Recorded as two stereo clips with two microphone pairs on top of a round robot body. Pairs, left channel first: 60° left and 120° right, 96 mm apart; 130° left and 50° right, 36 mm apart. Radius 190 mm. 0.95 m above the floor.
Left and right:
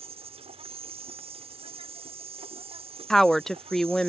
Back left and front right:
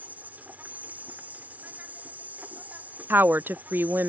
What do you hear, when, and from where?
0.0 s an insect: 95° right
3.1 s a woman speaking: 25° right